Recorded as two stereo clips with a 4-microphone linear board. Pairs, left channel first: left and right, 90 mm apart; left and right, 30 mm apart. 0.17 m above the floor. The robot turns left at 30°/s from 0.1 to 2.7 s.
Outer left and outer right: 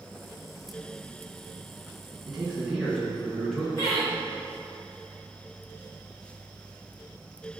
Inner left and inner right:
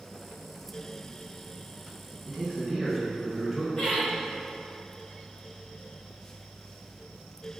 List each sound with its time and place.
2.2 s a man speaking: 5° right (ahead or behind), 2.0 m; by 3.7 s 5° left (ahead or behind), 2.0 m
3.8 s laughter: 40° left (ahead or behind), 1.9 m